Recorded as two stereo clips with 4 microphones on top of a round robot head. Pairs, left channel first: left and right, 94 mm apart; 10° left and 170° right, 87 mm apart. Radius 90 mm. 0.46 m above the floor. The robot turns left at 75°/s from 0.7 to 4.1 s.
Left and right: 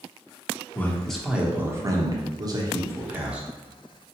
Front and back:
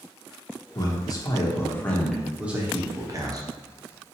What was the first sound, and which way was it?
A man speaking, 30° left.